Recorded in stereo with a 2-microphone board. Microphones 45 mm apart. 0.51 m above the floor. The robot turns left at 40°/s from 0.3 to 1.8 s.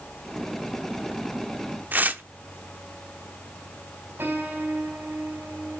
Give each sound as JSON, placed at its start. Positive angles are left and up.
{"t": 1.9, "sound": "tearing paper", "side_deg": -40, "distance_m": 0.9}
{"t": 4.2, "sound": "a piano", "side_deg": -55, "distance_m": 4.5}